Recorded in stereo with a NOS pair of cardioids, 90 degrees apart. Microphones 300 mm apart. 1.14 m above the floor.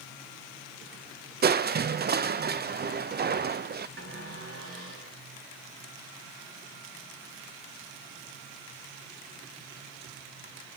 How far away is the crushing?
About 0.6 m.